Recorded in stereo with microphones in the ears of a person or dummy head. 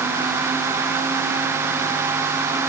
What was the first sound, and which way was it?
Only background noise.